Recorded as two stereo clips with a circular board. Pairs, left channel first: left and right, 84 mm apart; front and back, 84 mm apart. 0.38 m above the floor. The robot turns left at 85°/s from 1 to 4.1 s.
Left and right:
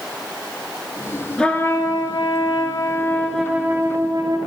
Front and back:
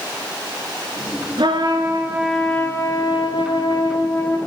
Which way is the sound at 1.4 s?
170° left.